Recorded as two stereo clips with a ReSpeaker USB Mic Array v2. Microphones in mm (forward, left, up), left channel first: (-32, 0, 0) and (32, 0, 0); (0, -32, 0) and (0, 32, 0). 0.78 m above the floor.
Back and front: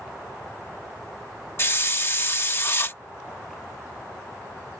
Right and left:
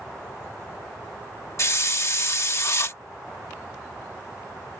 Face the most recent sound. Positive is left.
turn(degrees=-130)